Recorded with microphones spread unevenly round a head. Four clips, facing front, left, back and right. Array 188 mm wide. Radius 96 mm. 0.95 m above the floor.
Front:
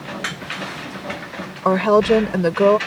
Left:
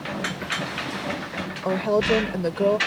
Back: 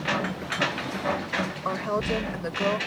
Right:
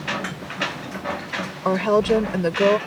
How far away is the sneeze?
I don't hear a sneeze.